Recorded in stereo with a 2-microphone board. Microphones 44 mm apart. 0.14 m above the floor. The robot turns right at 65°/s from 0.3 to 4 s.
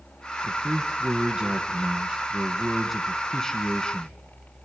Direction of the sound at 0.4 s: 5° right (ahead or behind).